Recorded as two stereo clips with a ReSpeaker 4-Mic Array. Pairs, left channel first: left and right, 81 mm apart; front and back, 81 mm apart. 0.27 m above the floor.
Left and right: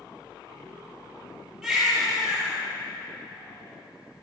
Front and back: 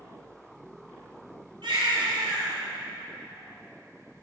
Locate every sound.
1.6 s a baby crying: 175° right, 2 m